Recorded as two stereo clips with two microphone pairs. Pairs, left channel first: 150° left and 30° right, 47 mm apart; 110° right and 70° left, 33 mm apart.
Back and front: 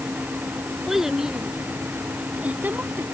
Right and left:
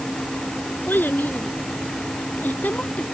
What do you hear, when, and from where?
0.9 s a child speaking: 115° right; by 3.0 s 75° right